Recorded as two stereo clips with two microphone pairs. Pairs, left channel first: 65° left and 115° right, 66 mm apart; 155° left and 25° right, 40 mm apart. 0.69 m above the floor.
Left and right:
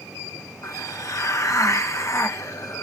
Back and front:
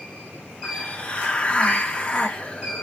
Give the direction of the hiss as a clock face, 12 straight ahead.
9 o'clock.